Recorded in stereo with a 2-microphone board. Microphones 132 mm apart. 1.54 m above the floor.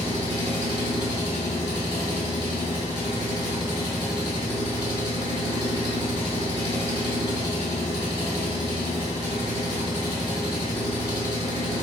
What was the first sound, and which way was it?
An engine running, 35° right (ahead or behind).